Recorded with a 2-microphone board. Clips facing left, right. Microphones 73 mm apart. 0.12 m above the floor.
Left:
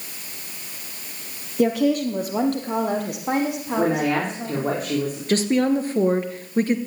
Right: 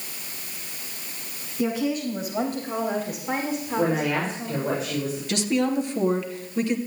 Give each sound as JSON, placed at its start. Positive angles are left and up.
{"t": 1.6, "sound": "a woman speaking", "side_deg": 60, "distance_m": 2.5}
{"t": 3.8, "sound": "a woman speaking", "side_deg": 50, "distance_m": 6.0}
{"t": 5.3, "sound": "a woman speaking", "side_deg": 40, "distance_m": 2.0}